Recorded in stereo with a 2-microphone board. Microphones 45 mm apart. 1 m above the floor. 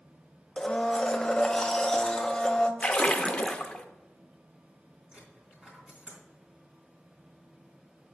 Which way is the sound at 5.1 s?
30° right (ahead or behind).